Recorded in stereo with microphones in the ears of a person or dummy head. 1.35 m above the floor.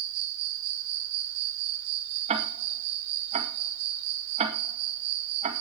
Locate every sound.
0.0 s an insect: 60° right (ahead or behind), 3.5 m
2.3 s ticking: 35° right (ahead or behind), 2 m